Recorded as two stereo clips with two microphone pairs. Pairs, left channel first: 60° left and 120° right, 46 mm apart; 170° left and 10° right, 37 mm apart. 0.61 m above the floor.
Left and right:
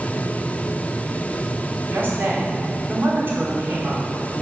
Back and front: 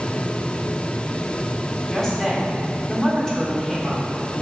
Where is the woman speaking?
115° right, 1.6 m.